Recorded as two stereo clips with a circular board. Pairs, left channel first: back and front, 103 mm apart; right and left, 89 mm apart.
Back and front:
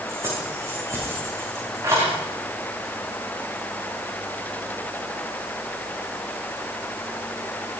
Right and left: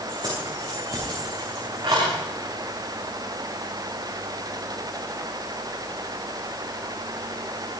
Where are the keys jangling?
60° left, 7 m; by 2.1 s 55° left, 9 m.